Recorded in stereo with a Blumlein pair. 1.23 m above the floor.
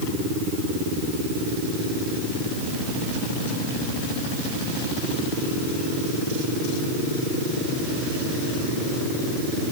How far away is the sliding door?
No sliding door in this recording.